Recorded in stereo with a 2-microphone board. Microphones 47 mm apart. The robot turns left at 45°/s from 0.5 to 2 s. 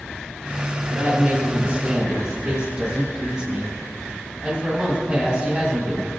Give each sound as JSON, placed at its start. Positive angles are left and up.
{"t": 0.9, "sound": "a woman speaking", "azimuth_deg": -105, "distance_m": 1.7}